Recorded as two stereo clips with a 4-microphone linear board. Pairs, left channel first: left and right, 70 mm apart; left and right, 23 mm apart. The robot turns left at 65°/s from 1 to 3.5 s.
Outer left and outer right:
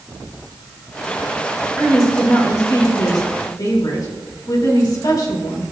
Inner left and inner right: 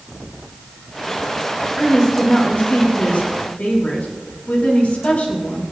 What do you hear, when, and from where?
1.8 s a woman speaking: 170° right, 3.5 m; by 5.6 s 75° left, 3.5 m